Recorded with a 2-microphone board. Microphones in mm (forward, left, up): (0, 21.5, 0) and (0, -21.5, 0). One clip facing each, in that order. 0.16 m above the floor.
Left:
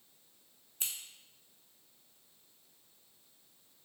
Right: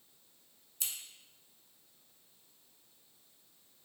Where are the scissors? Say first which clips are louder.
Left 1 dB; 45° left (ahead or behind), 0.5 m.